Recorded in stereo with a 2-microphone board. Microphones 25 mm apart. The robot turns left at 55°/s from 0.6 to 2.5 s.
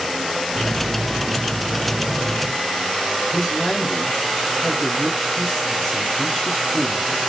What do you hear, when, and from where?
3.3 s a man speaking: 20° right (ahead or behind), 1.9 m